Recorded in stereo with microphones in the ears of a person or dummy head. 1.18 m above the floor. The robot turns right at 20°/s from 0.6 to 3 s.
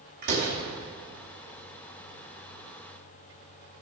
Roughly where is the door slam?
Right.